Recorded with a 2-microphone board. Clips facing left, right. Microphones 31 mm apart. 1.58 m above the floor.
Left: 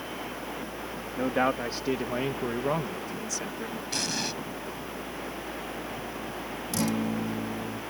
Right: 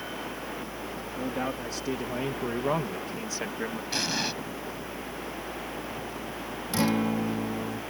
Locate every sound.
1.2 s a man speaking: 45° left (ahead or behind); by 3.8 s 45° right (ahead or behind)
3.9 s an explosion: 15° right (ahead or behind)
6.7 s a guitar: 30° right (ahead or behind)